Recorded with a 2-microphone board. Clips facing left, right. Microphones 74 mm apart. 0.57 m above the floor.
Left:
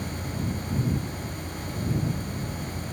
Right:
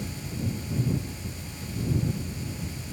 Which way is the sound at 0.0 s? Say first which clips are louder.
Left 2 dB; 30° left (ahead or behind).